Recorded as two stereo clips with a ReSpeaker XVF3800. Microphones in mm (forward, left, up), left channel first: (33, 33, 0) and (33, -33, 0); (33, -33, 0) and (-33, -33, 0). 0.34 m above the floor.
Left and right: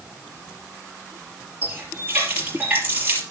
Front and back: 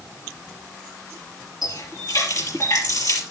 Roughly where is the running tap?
Ahead right.